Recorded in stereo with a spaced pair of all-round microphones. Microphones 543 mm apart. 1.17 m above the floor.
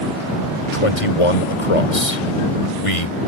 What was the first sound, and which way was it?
A man speaking, 80° left.